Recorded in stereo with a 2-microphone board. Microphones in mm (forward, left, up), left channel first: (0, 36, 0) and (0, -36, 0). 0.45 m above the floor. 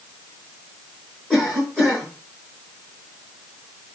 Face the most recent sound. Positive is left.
turn(degrees=5)  # may be behind; listen again after turning